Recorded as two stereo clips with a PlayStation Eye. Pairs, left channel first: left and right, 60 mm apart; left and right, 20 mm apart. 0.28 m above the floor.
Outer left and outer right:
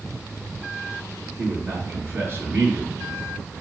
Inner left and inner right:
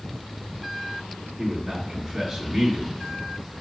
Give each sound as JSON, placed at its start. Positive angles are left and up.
{"t": 1.4, "sound": "a man speaking", "side_deg": -45, "distance_m": 1.9}